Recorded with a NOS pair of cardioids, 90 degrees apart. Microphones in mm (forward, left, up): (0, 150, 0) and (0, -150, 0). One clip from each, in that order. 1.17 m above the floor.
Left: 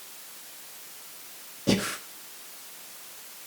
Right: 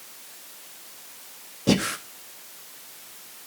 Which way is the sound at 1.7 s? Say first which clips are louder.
Right 3 dB; 20° right.